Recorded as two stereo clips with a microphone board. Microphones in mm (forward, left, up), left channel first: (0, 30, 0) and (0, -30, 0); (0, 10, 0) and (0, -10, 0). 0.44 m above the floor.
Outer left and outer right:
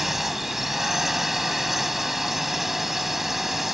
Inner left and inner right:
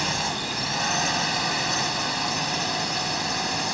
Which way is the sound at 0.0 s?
5° right (ahead or behind).